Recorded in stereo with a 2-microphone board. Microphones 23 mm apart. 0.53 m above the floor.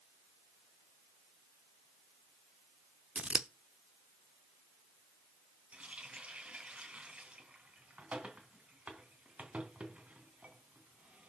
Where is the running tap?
60° right (ahead or behind), 3 m.